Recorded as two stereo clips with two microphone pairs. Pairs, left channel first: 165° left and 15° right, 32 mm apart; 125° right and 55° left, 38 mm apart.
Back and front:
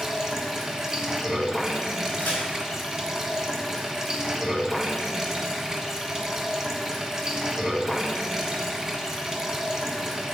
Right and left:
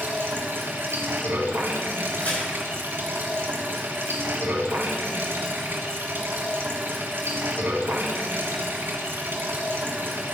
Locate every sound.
0.0 s running water: 60° left, 1.4 m
2.2 s a crack: 175° right, 4.5 m